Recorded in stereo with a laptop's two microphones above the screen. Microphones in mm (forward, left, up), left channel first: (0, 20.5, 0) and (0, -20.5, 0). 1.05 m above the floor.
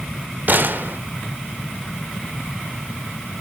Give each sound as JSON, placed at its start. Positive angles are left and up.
{"t": 0.5, "sound": "a gunshot", "side_deg": -50, "distance_m": 1.0}